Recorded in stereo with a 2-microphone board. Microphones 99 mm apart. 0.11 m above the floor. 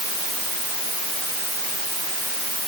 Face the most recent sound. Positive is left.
No sound to turn to.